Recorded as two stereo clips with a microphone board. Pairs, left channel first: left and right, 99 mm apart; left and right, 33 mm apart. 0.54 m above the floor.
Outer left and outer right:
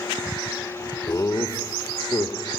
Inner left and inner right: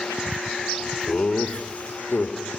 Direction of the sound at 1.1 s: 35° left (ahead or behind).